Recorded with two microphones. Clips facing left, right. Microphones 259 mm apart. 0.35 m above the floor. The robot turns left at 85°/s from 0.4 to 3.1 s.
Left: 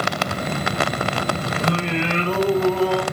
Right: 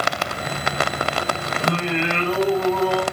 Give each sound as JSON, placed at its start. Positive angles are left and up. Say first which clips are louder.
{"t": 1.6, "sound": "singing", "louder": "right 1 dB", "azimuth_deg": 155, "distance_m": 0.8}